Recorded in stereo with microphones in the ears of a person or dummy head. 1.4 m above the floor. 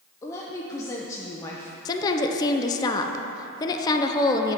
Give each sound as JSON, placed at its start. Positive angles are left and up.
{"t": 0.2, "sound": "a woman speaking", "side_deg": 20, "distance_m": 0.6}
{"t": 1.9, "sound": "a woman speaking", "side_deg": 25, "distance_m": 0.5}